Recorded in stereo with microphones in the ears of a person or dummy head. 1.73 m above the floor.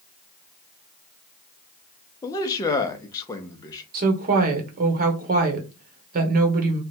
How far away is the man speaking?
About 0.7 m.